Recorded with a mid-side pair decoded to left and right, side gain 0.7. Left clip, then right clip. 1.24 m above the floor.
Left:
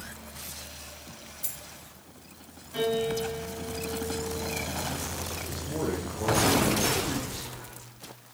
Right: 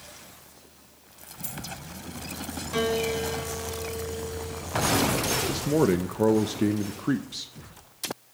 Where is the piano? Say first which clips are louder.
Right 1 dB; 60° right, 6 m.